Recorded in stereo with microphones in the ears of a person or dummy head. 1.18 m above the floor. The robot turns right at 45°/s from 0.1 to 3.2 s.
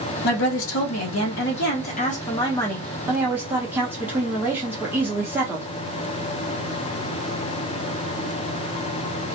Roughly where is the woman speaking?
Ahead left.